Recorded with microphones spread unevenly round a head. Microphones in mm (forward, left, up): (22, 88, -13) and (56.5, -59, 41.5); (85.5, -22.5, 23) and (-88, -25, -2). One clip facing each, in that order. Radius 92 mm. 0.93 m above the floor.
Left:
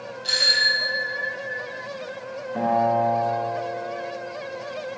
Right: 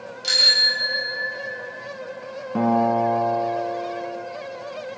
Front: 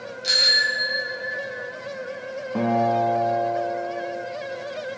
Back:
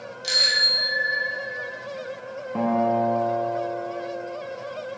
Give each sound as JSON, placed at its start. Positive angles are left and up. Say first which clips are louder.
{"t": 0.2, "sound": "a bicycle bell", "louder": "even, front 1 dB", "azimuth_deg": -90, "distance_m": 3.5}
{"t": 2.5, "sound": "a guitar", "louder": "right 2 dB, front 1 dB", "azimuth_deg": -80, "distance_m": 2.0}